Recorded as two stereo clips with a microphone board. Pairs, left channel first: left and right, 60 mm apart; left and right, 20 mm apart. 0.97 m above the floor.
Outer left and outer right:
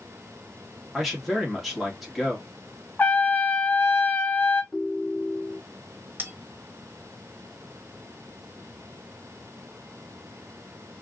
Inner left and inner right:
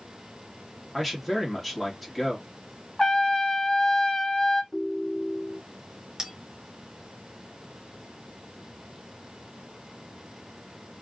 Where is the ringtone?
Centre (ahead or behind), 0.6 m.